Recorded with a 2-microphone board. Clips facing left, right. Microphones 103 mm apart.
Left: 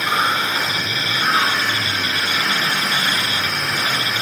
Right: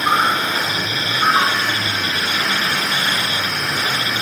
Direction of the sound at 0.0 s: 45° right (ahead or behind).